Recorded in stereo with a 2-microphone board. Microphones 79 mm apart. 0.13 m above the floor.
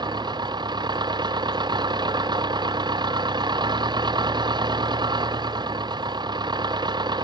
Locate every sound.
0.0 s an engine running: 65° right (ahead or behind)